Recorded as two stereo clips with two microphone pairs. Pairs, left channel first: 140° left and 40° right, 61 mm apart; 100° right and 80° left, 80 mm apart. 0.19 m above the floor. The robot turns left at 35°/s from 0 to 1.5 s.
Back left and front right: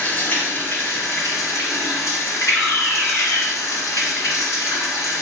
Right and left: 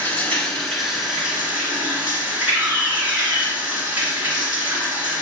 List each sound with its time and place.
0.0 s running water: 160° right, 1.8 m; by 5.2 s 150° left, 1.8 m
2.5 s a fire alarm: 145° left, 2 m